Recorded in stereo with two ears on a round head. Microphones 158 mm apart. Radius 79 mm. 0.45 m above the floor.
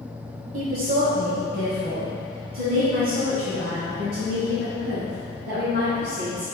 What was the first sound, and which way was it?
A woman speaking, 50° right (ahead or behind).